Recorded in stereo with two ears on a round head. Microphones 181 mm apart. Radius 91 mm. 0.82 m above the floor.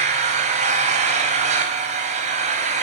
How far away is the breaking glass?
No breaking glass in this recording.